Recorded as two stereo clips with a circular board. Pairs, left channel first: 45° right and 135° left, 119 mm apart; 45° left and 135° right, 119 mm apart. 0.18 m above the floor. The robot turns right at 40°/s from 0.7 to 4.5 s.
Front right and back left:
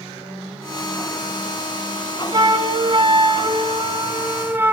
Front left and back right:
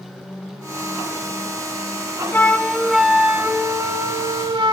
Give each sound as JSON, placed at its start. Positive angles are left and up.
{"t": 2.3, "sound": "a flute", "azimuth_deg": 110, "distance_m": 0.6}